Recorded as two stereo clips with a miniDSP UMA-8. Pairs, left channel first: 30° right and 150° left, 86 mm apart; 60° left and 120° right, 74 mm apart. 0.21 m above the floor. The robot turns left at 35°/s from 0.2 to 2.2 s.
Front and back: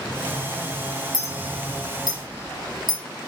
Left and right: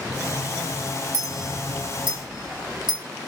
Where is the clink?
160° right, 1.3 m; by 3.0 s 165° left, 1.3 m.